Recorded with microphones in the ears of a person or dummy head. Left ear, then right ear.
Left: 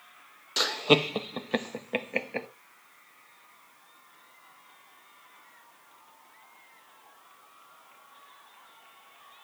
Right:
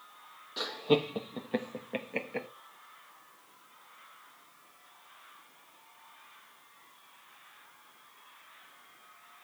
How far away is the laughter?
About 1.2 m.